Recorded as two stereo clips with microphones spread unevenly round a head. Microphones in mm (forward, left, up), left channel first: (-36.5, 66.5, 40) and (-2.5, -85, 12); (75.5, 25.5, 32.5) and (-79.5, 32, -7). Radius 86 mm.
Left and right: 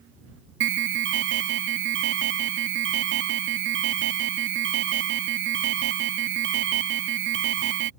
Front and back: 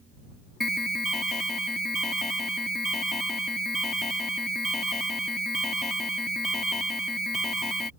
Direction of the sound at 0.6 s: 90° right.